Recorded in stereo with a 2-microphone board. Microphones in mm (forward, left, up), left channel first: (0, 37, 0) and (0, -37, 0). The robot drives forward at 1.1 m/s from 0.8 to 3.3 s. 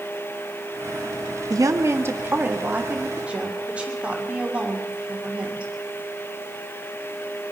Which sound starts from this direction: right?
A woman speaking, at 1.5 s.